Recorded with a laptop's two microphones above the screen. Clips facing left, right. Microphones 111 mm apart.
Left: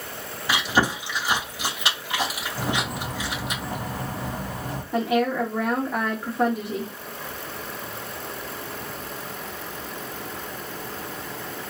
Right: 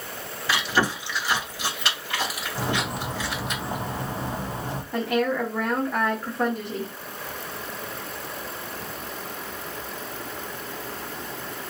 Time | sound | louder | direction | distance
0.5 | chewing | left 1 dB | 15° left (ahead or behind) | 2 m
2.5 | a bird | even | 25° right (ahead or behind) | 0.8 m
4.9 | a woman speaking | left 2 dB | 10° left (ahead or behind) | 1.0 m